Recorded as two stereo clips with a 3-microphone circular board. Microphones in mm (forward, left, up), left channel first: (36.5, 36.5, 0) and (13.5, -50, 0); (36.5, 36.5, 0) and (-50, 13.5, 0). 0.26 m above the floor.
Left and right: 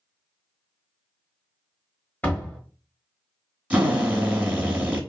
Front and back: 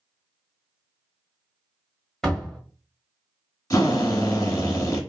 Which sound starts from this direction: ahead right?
A drill, at 3.7 s.